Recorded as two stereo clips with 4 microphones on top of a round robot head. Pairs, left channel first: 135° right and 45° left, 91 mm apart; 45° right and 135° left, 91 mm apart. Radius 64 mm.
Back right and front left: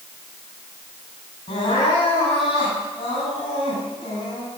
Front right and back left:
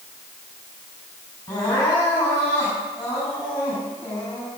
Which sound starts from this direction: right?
Crying, at 1.5 s.